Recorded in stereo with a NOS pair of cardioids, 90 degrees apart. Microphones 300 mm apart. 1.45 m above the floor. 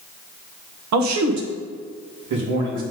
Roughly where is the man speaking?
Ahead right.